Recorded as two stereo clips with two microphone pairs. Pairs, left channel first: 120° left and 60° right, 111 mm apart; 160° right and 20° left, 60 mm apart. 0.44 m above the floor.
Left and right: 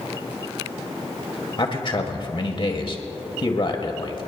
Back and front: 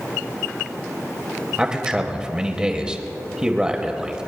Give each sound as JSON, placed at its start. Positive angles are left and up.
{"t": 1.6, "sound": "a man speaking", "azimuth_deg": 95, "distance_m": 2.0}